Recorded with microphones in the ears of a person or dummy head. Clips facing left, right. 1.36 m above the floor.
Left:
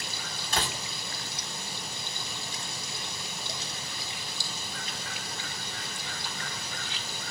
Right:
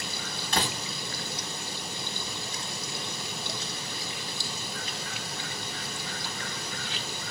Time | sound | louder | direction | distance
0.5 | a door slam | right 2 dB | 70° right (ahead or behind) | 1.2 m